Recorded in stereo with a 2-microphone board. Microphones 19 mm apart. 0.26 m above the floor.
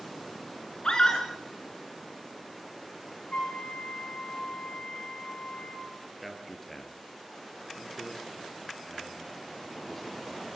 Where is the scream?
50° left (ahead or behind), 3 m.